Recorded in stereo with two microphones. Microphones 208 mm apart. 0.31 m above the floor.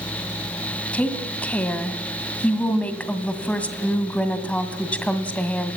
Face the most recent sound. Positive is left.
turn(degrees=5)  # may be behind; listen again after turning